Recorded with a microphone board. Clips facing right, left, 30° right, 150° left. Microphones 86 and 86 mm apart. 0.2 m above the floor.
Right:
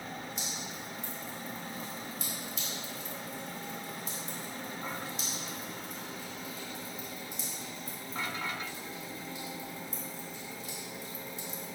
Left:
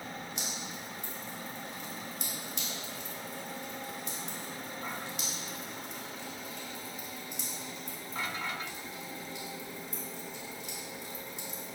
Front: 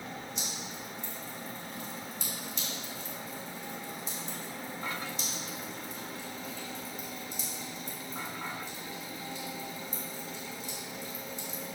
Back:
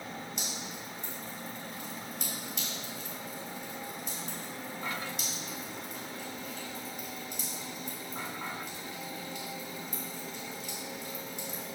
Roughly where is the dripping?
Behind left.